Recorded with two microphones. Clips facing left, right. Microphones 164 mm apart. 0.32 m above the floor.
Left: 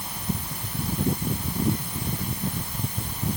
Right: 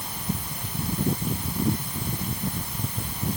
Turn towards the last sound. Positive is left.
No sound to turn to.